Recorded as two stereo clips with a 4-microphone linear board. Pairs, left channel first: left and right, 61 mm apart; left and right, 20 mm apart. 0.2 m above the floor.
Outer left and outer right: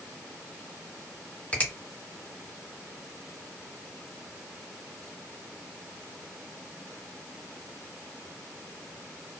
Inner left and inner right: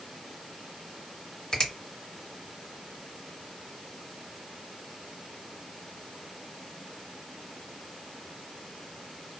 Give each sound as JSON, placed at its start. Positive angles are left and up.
{"t": 1.5, "sound": "a finger snap", "side_deg": 20, "distance_m": 1.7}